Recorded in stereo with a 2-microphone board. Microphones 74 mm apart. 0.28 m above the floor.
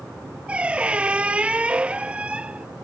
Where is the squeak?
15° right (ahead or behind).